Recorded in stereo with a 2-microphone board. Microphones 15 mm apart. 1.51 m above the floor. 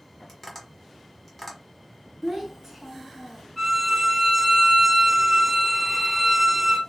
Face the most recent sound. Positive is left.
turn(degrees=-5)  # may be behind; listen again after turning